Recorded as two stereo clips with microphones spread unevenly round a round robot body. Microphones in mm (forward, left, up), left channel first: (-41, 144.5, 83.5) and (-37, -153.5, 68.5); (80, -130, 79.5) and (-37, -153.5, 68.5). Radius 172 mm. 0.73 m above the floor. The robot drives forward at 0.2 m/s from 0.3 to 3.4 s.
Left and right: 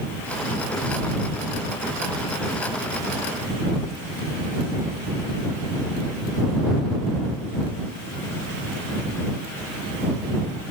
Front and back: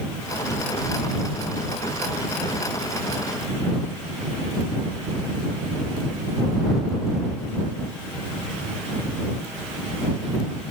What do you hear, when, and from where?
Only background noise.